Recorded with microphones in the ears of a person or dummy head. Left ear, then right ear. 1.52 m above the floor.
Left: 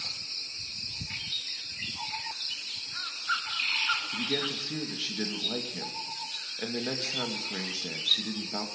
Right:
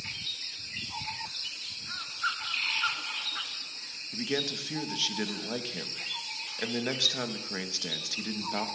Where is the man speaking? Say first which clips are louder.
Left 1 dB; 15° right (ahead or behind), 2.5 m.